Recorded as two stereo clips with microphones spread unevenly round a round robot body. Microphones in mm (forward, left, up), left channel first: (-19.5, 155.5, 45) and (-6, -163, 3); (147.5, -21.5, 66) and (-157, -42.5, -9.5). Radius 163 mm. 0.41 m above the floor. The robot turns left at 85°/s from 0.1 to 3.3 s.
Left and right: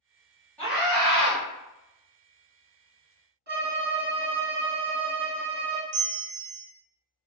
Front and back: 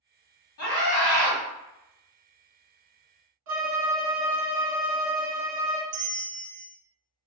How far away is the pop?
I don't hear a pop.